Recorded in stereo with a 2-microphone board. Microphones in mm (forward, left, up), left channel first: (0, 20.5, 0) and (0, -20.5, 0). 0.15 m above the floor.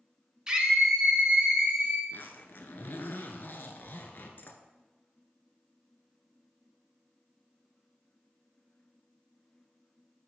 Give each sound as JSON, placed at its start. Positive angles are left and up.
{"t": 0.5, "sound": "a scream", "side_deg": -20, "distance_m": 1.2}
{"t": 2.1, "sound": "a zipper", "side_deg": 60, "distance_m": 0.7}